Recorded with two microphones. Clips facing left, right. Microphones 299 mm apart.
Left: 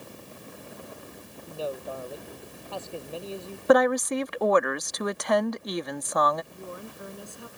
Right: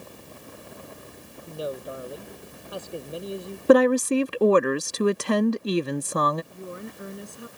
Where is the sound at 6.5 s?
20° right (ahead or behind).